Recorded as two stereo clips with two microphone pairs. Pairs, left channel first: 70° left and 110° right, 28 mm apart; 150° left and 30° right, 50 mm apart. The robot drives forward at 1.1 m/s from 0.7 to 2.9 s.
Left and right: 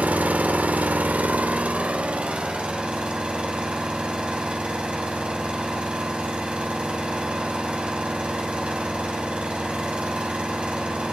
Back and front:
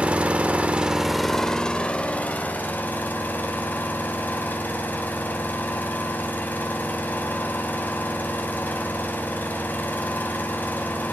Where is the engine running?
95° right, 1.1 m; by 11.1 s 155° right, 2.5 m.